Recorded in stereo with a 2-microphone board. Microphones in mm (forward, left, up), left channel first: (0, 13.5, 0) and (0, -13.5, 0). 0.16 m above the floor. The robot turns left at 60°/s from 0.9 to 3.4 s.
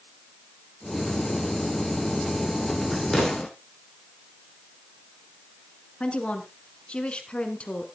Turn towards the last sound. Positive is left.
turn(degrees=45)  # may be behind; listen again after turning